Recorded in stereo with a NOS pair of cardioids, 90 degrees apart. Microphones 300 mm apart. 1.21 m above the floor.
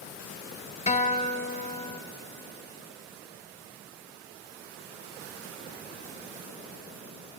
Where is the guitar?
20° left, 0.8 m.